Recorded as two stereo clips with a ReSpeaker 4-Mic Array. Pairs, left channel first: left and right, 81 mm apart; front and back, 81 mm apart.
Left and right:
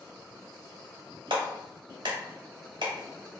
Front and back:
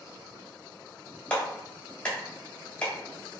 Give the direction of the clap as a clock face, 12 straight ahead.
2 o'clock.